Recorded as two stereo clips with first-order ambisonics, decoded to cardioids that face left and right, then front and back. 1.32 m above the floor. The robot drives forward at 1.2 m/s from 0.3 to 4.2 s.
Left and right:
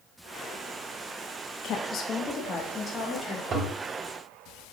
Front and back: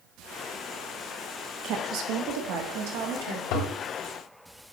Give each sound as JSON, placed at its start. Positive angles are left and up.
{"t": 1.6, "sound": "a woman speaking", "azimuth_deg": 135, "distance_m": 0.9}
{"t": 3.5, "sound": "a toilet flushing", "azimuth_deg": -30, "distance_m": 1.4}